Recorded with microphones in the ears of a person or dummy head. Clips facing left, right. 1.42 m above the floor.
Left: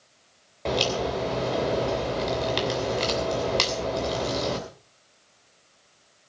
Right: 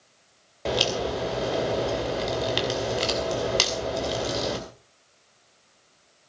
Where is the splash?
I don't hear a splash.